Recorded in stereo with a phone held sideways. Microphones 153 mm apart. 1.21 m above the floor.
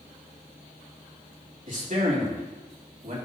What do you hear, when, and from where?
1.7 s a man speaking: 55° right (ahead or behind), 3 m